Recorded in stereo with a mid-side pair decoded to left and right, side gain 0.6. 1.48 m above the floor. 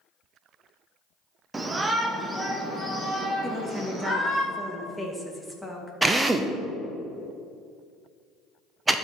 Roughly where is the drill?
Ahead.